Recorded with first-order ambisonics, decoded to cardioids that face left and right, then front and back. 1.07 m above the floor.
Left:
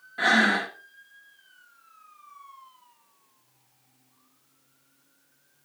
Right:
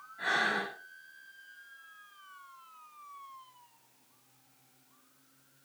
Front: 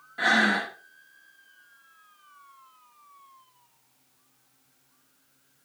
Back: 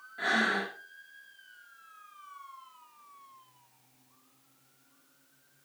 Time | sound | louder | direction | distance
0.2 | breathing | left 9 dB, front 6 dB | 65° left | 2.5 m